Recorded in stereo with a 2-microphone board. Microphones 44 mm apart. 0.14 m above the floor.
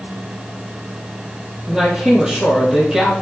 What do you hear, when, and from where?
1.7 s a man speaking: 15° right (ahead or behind), 3 m